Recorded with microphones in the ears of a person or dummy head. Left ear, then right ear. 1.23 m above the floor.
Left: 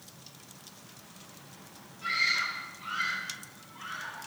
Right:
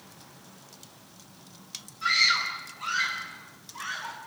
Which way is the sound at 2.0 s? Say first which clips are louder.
Right 5 dB; 40° right (ahead or behind).